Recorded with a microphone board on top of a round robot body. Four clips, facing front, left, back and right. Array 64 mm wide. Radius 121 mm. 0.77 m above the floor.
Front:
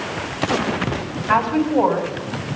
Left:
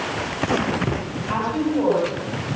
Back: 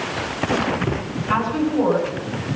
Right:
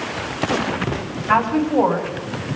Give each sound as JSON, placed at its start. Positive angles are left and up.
{"t": 1.3, "sound": "a woman speaking", "azimuth_deg": -50, "distance_m": 7.0}